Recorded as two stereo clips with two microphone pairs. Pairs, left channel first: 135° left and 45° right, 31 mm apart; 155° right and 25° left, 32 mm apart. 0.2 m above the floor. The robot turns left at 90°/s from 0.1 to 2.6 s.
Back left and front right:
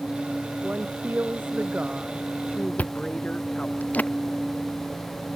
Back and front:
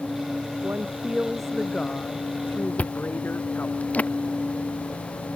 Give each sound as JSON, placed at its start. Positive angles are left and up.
{"t": 0.6, "sound": "a woman speaking", "azimuth_deg": 10}
{"t": 2.8, "sound": "chewing", "azimuth_deg": 165}